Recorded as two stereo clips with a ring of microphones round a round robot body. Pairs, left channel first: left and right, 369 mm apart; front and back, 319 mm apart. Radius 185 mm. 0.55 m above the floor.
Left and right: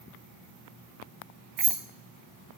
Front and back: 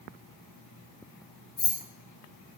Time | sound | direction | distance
1.6 | keys jangling | 50° right | 1.7 m